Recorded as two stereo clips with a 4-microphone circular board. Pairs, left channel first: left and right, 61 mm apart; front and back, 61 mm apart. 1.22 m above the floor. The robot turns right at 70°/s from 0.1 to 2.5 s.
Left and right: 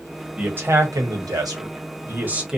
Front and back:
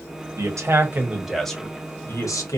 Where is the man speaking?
160° right, 1.0 m; by 2.6 s 10° right, 1.0 m.